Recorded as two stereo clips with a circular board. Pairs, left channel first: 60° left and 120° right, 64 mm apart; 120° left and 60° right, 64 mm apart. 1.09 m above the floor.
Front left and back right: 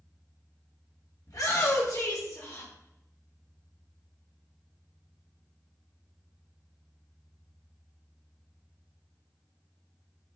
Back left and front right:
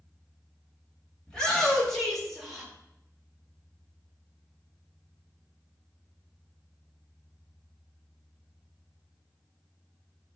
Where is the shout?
45° left, 2.5 m; by 2.7 s 25° left, 2 m.